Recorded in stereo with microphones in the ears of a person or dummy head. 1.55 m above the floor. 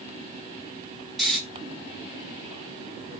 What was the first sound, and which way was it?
Snoring, centre (ahead or behind).